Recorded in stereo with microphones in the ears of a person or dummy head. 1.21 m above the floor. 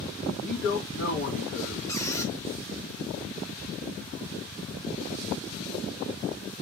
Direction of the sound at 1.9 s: 15° left (ahead or behind).